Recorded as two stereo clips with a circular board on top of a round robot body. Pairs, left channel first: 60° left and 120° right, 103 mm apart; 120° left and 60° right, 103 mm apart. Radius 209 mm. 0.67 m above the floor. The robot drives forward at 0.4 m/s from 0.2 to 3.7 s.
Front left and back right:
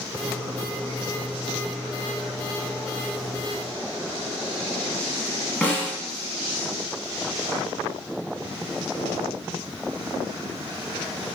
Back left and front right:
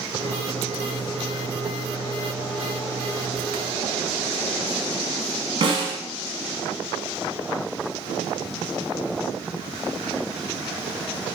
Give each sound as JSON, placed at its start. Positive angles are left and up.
{"t": 5.6, "sound": "a snare drum", "azimuth_deg": -15, "distance_m": 0.7}